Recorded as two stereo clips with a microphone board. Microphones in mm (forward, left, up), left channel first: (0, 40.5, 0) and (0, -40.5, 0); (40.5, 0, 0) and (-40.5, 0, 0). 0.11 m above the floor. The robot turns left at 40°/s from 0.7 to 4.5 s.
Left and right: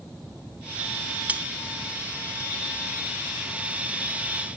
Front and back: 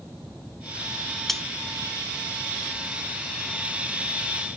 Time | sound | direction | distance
1.3 | cutlery clinking | 75° right | 0.6 m